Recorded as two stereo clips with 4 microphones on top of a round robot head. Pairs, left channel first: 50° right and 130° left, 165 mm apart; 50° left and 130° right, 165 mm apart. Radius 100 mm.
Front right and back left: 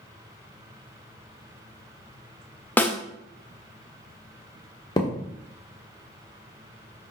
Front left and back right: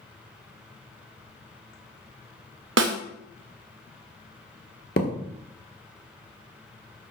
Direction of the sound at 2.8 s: 130° right.